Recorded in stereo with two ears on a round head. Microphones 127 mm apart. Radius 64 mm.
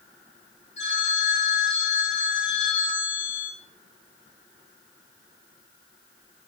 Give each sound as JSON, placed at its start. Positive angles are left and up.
{"t": 0.8, "sound": "a phone ringing", "side_deg": 50, "distance_m": 4.0}